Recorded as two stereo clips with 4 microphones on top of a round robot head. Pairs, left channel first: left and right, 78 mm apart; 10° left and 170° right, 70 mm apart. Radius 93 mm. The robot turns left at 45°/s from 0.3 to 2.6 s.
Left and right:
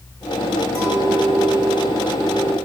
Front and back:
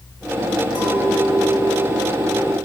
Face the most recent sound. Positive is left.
turn(degrees=-115)